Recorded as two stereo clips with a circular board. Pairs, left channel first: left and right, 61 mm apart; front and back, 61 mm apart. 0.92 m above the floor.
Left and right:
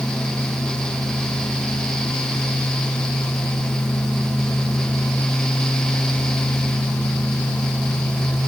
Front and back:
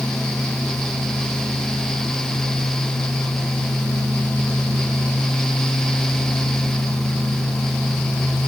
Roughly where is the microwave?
I don't hear a microwave.